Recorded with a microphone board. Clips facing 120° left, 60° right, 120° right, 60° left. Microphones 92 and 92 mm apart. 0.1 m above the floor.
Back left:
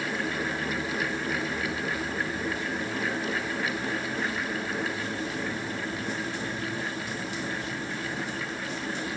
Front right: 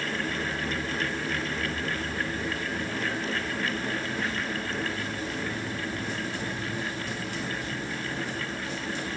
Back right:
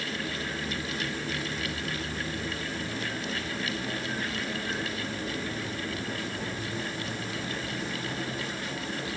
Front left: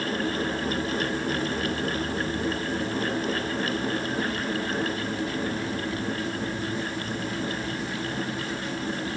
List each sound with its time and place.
Only background noise.